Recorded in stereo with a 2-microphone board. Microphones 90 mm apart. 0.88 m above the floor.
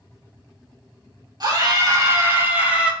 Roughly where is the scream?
Right.